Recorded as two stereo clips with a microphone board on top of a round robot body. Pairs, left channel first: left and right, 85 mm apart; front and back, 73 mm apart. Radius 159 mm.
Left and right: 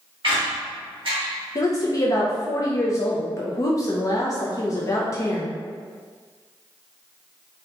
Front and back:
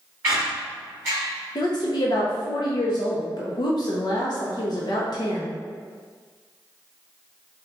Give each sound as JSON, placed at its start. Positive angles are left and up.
{"t": 0.2, "sound": "a squeak", "azimuth_deg": -120, "distance_m": 0.8}
{"t": 1.6, "sound": "a woman speaking", "azimuth_deg": 35, "distance_m": 0.5}